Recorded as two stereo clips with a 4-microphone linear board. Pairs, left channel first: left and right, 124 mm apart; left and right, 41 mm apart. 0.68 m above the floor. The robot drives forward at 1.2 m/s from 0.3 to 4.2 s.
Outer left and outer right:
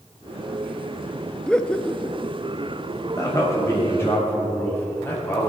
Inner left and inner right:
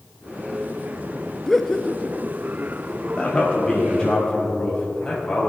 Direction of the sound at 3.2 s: 25° left (ahead or behind).